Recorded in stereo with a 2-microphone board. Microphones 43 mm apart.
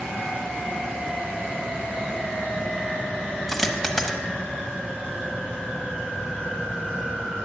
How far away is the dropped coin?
About 1.0 m.